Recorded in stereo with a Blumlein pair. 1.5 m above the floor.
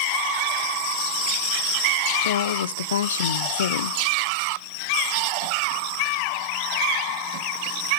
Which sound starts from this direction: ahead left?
A woman speaking, at 2.2 s.